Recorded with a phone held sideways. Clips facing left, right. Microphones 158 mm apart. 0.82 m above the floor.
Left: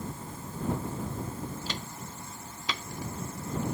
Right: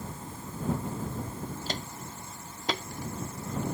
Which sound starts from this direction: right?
Footsteps, at 1.7 s.